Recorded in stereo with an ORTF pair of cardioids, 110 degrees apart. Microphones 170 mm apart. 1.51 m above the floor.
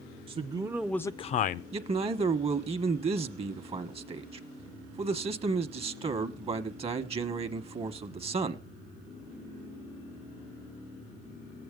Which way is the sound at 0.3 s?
35° right.